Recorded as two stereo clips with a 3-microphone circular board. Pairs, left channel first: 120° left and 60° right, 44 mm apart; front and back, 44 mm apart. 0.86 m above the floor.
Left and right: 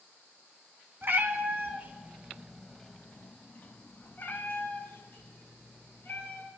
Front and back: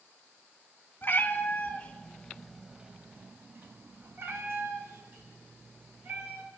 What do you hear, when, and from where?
1.0 s a cat meowing: 35° right, 1.3 m; by 6.5 s 155° left, 3 m